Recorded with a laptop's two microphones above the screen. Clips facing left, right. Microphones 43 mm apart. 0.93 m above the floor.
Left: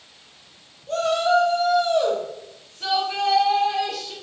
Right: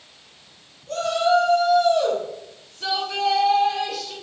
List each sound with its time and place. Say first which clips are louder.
0.9 s a shout: even; 30° left (ahead or behind), 0.9 m; by 4.1 s 15° left (ahead or behind), 1.6 m